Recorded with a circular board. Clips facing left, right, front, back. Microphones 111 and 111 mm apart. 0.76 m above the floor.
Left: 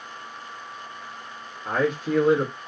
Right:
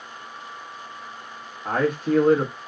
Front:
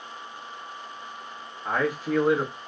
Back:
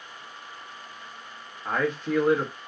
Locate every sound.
1.6 s a man speaking: 85° right, 0.9 m